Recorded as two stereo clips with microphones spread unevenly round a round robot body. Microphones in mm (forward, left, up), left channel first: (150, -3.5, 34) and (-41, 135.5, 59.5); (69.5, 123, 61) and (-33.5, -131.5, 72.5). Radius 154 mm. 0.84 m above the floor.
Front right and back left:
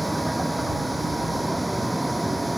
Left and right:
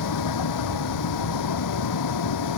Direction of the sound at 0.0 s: 55° left.